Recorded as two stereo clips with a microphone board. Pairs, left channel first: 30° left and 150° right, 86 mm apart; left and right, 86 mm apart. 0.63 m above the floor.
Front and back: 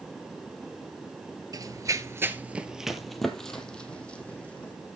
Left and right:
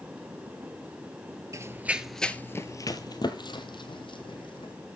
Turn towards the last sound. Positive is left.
turn(degrees=105)